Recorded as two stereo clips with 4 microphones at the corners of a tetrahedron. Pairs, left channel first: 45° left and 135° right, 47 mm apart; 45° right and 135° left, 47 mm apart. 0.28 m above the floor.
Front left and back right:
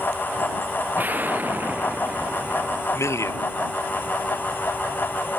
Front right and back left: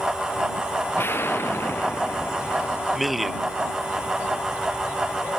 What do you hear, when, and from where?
1.0 s an explosion: 85° right
2.9 s a man speaking: 45° left